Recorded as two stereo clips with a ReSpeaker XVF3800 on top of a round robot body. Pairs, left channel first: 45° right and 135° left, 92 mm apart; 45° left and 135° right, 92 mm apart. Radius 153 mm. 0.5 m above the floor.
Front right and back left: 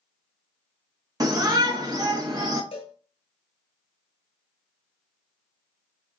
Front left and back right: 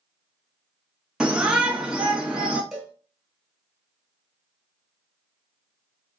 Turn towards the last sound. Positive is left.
turn(degrees=-55)